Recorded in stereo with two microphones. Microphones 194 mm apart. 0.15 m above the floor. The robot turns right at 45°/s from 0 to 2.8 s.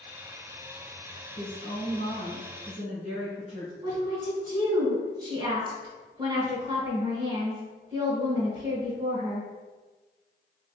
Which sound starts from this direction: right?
A woman speaking, at 3.8 s.